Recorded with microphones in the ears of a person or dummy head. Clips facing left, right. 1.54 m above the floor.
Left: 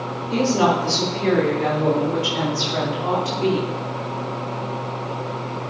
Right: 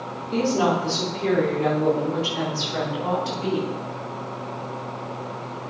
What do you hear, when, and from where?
0.3 s a woman speaking: 85° left, 3.5 m; by 3.8 s 40° left (ahead or behind), 5 m